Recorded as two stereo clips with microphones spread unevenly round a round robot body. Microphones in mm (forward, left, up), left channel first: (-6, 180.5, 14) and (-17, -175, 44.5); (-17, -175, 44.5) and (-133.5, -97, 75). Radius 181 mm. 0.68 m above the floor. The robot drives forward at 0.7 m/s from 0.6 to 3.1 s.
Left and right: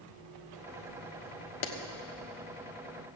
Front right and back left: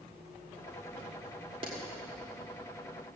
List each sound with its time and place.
1.6 s a clap: 80° left, 1.3 m; by 1.7 s 85° left, 1.3 m